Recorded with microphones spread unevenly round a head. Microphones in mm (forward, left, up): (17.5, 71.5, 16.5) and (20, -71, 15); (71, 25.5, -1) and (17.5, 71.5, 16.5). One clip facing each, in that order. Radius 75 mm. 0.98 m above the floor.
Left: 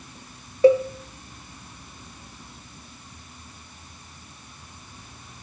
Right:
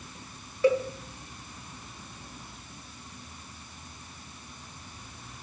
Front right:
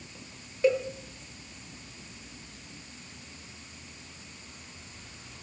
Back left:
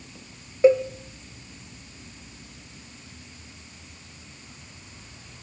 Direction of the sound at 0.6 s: 140° left.